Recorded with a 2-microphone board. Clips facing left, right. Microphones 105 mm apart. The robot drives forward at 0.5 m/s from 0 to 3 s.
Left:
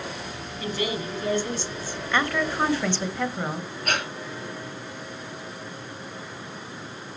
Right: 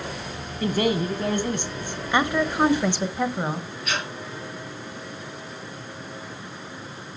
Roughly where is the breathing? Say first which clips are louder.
Left 2 dB; left.